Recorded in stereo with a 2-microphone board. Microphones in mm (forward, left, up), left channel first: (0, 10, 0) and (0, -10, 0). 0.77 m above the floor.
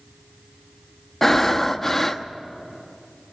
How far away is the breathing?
About 0.9 m.